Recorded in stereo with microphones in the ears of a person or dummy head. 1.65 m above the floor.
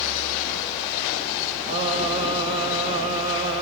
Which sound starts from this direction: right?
Singing, at 1.7 s.